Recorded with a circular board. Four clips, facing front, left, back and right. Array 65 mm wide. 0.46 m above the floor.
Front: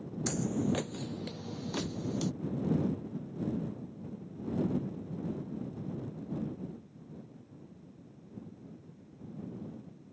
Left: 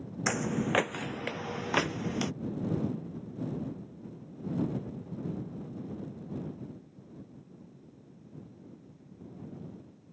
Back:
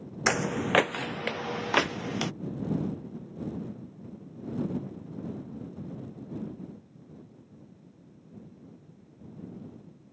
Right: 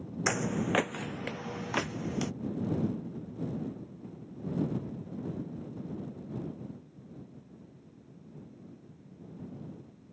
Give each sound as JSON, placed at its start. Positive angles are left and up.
{"t": 0.3, "sound": "footsteps", "azimuth_deg": -175}
{"t": 1.8, "sound": "knocking", "azimuth_deg": 125}